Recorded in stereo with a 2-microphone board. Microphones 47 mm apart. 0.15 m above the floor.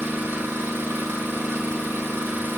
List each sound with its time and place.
0.0 s an engine running: 55° right (ahead or behind), 1.2 m